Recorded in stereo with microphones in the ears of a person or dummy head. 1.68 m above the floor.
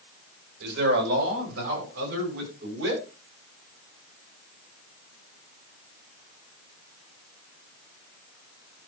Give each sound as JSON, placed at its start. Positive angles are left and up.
{"t": 0.6, "sound": "a man speaking", "side_deg": -80, "distance_m": 7.0}